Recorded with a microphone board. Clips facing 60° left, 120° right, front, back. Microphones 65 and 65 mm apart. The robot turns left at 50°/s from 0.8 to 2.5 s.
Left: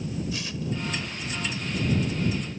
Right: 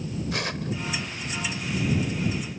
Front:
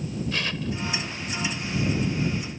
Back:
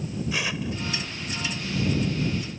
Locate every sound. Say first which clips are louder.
0.3 s tearing paper: right 2 dB, back 1 dB; 100° right